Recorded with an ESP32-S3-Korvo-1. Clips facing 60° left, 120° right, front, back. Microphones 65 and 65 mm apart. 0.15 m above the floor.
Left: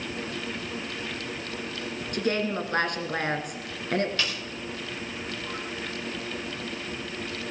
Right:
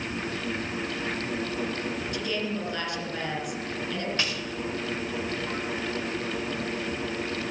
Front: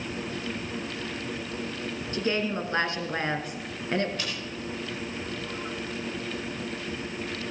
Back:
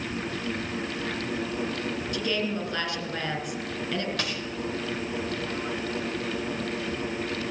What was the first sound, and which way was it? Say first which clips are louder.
A woman speaking: left 8 dB, front 3 dB; 45° left.